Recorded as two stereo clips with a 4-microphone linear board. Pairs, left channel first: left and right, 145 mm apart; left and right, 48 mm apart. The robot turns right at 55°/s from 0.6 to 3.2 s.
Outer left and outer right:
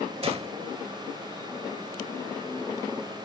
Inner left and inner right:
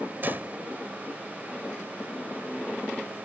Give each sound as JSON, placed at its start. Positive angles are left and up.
{"t": 0.2, "sound": "a gunshot", "side_deg": -40}